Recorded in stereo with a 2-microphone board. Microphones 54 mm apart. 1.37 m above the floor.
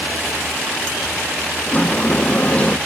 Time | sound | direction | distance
1.7 | a sliding door | 25° left (ahead or behind) | 0.6 m